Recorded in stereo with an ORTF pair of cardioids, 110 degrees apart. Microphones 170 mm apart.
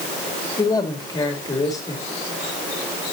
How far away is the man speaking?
About 3 m.